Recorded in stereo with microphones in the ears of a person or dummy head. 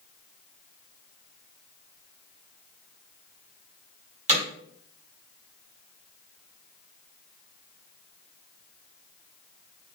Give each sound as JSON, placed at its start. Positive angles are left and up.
{"t": 4.3, "sound": "hammering", "side_deg": -35, "distance_m": 5.5}